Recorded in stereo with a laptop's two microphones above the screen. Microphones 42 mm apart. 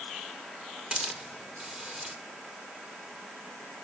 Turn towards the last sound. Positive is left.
turn(degrees=-25)  # may be behind; listen again after turning